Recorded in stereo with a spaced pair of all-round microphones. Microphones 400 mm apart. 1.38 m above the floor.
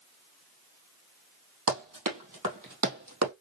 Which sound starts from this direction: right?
Running footsteps, at 1.7 s.